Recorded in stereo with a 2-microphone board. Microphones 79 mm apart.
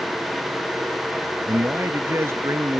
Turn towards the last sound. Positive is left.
turn(degrees=-35)  # may be behind; listen again after turning